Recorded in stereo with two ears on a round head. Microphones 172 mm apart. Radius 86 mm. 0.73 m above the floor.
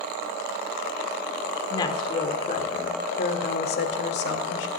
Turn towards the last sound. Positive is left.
turn(degrees=65)  # may be behind; listen again after turning